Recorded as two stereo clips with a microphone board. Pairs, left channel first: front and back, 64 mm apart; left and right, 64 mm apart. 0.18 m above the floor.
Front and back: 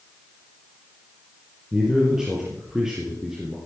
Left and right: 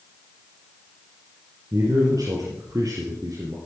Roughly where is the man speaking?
Right.